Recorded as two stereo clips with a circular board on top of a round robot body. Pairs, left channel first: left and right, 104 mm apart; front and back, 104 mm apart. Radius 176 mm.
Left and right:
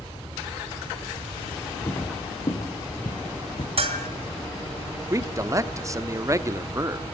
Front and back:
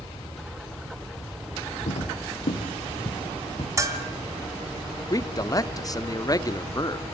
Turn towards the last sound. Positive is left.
turn(degrees=-40)